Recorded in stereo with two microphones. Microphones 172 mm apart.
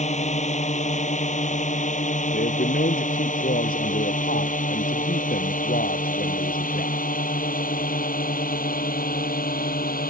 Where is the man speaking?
65° left (ahead or behind).